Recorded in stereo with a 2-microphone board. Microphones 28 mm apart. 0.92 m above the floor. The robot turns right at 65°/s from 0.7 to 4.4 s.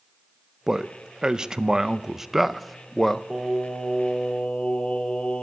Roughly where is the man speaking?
Centre.